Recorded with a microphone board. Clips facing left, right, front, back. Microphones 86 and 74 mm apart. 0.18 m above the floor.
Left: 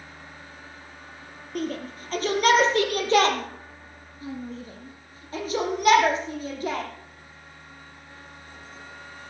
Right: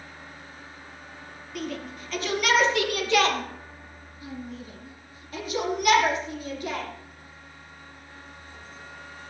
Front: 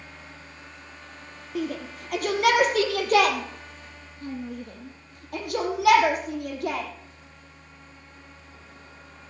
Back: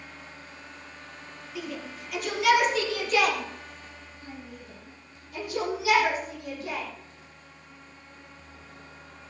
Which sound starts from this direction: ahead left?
A shout, at 1.6 s.